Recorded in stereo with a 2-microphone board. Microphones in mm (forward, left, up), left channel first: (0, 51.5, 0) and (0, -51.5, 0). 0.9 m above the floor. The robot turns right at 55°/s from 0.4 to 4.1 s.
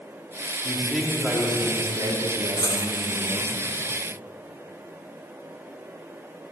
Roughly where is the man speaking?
Behind.